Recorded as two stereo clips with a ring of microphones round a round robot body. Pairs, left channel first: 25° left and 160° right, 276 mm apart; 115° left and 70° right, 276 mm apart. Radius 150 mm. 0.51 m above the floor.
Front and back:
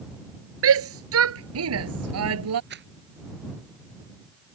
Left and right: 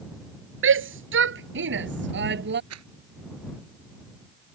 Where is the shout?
115° right; by 2.6 s 120° right.